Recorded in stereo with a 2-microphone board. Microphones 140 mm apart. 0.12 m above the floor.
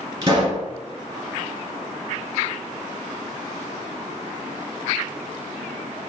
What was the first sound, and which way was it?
A pop, 30° right (ahead or behind).